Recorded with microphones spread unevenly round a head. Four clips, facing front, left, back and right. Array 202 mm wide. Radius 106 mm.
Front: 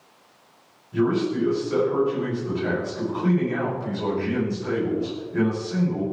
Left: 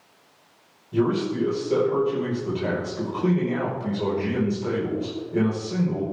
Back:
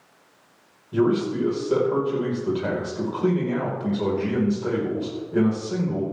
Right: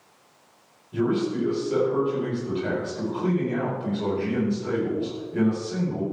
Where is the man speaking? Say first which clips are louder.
Left 1 dB, back 1 dB; 155° left, 5 m.